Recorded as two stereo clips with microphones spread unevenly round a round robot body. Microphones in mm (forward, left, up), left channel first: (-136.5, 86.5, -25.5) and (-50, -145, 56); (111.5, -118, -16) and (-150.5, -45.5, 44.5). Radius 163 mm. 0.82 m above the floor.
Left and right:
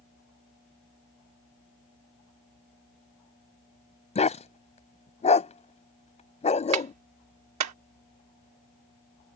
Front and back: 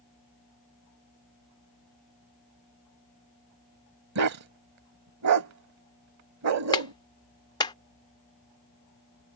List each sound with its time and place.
4.2 s a dog barking: straight behind
6.7 s a clap: 85° right